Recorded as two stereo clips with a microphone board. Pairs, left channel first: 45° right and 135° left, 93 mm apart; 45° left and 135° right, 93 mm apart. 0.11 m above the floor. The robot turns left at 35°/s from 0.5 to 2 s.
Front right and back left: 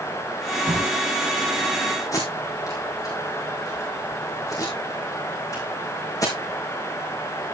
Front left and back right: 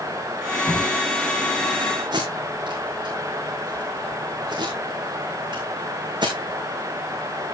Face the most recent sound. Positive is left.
turn(degrees=-100)